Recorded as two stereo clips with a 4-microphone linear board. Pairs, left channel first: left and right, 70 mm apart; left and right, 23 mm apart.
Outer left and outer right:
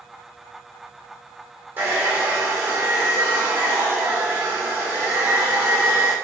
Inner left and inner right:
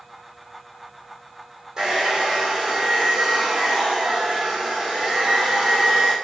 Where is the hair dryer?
25° right (ahead or behind), 1.1 m.